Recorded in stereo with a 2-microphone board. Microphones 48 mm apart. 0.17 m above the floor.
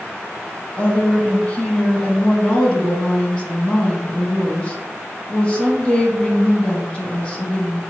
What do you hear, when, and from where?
0.8 s a woman speaking: 25° left (ahead or behind), 1.1 m